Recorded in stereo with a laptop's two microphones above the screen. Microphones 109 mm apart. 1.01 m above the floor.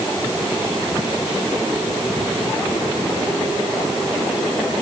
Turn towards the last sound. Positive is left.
No sound to turn to.